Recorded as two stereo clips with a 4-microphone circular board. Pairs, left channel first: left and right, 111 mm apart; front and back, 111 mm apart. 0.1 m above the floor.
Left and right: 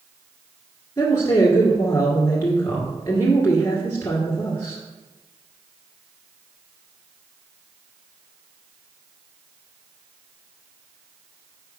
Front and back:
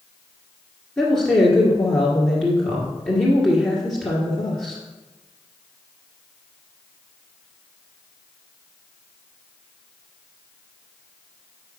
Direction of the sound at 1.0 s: 75° left.